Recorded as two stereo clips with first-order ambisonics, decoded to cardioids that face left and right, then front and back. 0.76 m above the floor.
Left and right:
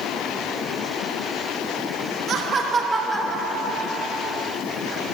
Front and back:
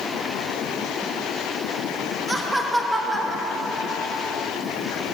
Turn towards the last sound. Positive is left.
turn(degrees=80)